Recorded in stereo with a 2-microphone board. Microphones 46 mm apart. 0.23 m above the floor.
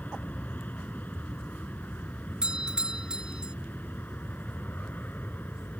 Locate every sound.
0.0 s an aircraft: 40° left (ahead or behind); by 5.8 s 45° left (ahead or behind)
2.4 s a doorbell: 20° right (ahead or behind)